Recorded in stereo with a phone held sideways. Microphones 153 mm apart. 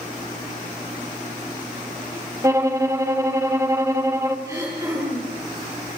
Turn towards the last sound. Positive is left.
turn(degrees=-20)  # may be behind; listen again after turning